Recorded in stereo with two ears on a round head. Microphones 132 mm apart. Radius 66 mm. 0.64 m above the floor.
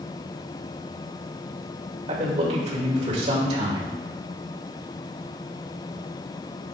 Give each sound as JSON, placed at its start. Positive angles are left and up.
{"t": 2.1, "sound": "a man speaking", "side_deg": -45, "distance_m": 2.0}